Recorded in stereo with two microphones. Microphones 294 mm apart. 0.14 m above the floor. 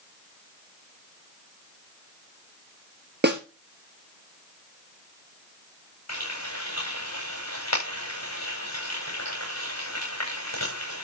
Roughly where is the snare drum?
Right.